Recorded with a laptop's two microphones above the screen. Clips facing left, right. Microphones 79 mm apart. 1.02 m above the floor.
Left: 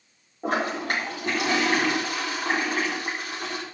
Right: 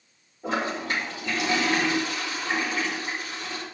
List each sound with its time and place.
0.4 s a toilet flushing: 60° left (ahead or behind), 3.5 m